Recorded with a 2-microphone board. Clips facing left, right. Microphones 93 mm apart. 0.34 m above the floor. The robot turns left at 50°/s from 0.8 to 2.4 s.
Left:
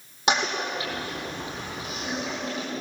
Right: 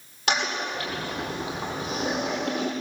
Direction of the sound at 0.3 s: 25° left (ahead or behind).